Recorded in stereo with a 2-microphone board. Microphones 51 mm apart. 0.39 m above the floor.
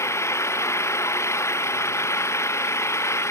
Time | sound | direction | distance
0.0 | an engine running | 65° left (ahead or behind) | ?